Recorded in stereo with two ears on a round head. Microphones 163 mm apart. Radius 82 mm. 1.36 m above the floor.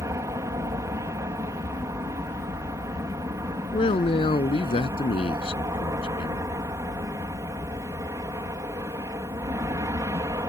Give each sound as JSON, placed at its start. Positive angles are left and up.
{"t": 0.0, "sound": "an aircraft", "side_deg": -15}
{"t": 3.7, "sound": "a man speaking", "side_deg": 30}